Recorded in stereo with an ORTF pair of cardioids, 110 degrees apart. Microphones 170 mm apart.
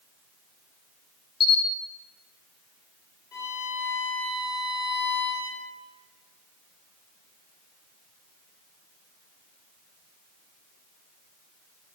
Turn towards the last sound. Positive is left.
turn(degrees=25)